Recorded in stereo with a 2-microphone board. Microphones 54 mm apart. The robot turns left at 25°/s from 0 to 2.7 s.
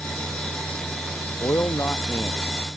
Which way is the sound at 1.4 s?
65° left.